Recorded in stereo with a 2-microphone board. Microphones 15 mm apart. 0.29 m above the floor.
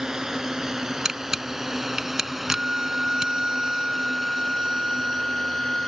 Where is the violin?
45° right (ahead or behind).